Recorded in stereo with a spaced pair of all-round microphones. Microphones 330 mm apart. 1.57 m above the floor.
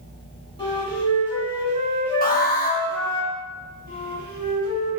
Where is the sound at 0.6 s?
15° left (ahead or behind), 1.2 m.